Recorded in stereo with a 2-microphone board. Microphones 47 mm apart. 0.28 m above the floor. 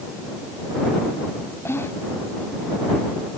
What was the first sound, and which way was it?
Whispering, 50° left (ahead or behind).